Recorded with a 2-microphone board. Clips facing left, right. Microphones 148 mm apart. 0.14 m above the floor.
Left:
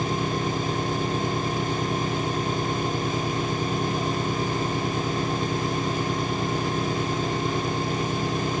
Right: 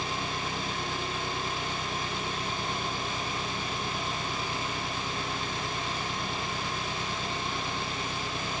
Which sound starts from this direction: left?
An engine running, at 0.0 s.